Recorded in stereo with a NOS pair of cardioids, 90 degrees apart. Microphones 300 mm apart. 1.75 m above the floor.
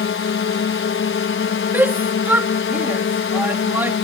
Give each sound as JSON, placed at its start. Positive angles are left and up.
{"t": 0.0, "sound": "a drone", "azimuth_deg": 45}
{"t": 1.7, "sound": "a shout", "azimuth_deg": -5}